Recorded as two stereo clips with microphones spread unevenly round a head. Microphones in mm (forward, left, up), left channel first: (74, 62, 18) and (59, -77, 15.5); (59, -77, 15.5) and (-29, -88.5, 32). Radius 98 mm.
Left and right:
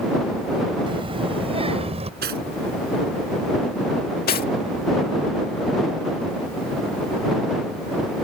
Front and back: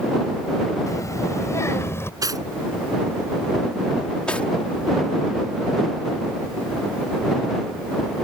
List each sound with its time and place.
0.9 s a child speaking: 45° right; by 2.1 s 55° right
2.2 s cutlery clinking: 130° right
4.3 s cutlery clinking: 95° left